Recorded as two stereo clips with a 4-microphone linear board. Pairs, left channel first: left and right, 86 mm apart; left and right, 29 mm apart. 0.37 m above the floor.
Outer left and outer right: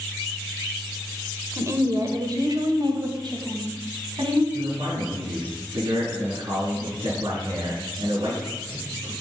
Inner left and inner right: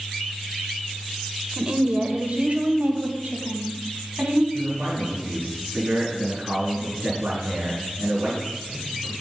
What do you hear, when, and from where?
1.6 s a woman speaking: 30° right (ahead or behind), 1.2 m; by 4.4 s 65° right (ahead or behind), 2.5 m
4.5 s a man speaking: 70° right (ahead or behind), 4.5 m